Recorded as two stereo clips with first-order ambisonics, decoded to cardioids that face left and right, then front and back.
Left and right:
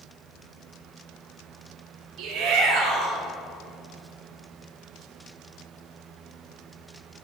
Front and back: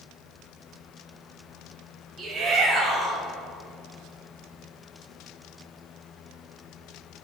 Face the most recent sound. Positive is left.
turn(degrees=-100)